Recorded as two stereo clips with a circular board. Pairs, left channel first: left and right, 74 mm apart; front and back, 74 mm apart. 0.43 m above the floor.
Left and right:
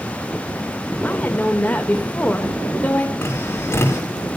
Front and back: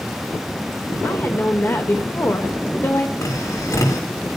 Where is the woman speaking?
35° left, 1.6 m.